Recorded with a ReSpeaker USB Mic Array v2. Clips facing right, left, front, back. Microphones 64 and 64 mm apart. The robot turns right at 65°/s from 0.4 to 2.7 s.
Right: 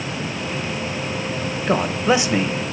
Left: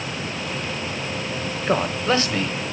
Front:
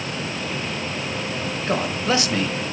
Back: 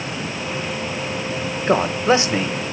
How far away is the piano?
No piano in this recording.